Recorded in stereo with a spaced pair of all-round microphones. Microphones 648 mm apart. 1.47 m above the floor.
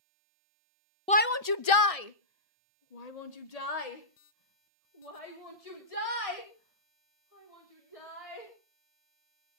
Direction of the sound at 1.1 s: 10° left (ahead or behind).